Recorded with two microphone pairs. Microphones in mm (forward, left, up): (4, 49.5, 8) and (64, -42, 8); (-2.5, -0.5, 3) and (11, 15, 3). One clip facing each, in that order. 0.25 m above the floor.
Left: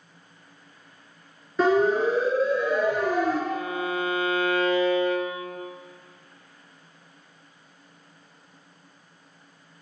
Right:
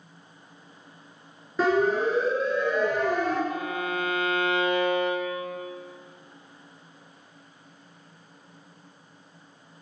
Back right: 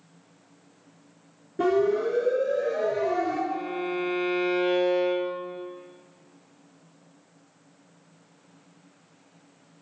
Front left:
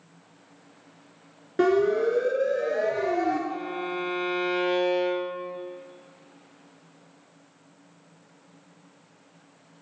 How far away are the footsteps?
I don't hear footsteps.